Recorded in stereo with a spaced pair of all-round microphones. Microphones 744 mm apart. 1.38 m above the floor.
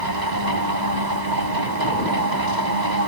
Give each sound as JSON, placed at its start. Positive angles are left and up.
{"t": 0.0, "sound": "a machine running", "side_deg": -70}